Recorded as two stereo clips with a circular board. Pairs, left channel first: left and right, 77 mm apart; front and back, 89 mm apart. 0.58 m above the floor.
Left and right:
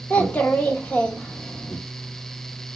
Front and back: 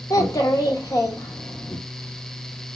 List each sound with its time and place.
0.1 s a child speaking: 25° left, 0.9 m